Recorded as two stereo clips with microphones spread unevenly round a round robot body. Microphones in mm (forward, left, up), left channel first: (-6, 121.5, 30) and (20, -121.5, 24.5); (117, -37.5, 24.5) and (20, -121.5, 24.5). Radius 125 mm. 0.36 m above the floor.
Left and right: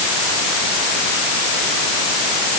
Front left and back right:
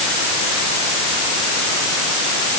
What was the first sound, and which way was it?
Only background noise.